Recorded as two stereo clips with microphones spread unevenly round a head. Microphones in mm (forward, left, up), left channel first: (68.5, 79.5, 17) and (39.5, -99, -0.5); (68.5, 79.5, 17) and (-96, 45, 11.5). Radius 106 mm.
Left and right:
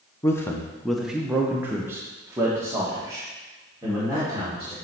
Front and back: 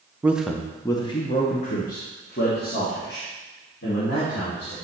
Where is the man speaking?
120° left, 0.7 m; by 4.8 s 25° right, 3 m.